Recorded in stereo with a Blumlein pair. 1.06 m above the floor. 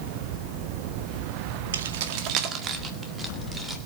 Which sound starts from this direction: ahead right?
Keys jangling, at 1.7 s.